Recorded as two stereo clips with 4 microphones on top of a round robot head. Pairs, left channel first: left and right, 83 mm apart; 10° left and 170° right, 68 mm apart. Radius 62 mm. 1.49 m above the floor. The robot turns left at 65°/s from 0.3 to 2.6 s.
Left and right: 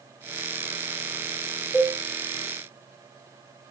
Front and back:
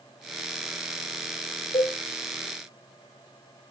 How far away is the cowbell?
About 3.5 m.